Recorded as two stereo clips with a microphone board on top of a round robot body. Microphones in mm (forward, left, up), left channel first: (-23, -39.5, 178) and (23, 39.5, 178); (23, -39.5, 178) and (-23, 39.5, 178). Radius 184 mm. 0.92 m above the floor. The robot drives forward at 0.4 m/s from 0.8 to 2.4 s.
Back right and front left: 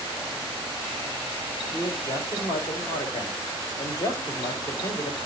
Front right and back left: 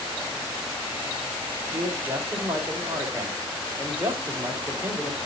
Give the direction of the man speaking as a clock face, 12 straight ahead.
6 o'clock.